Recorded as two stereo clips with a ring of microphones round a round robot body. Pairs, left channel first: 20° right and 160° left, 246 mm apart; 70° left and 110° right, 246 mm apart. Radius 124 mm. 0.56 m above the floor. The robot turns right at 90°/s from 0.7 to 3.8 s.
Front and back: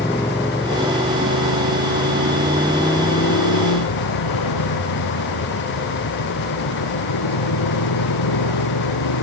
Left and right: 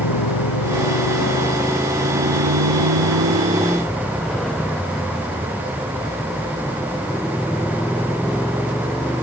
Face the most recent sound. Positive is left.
turn(degrees=-20)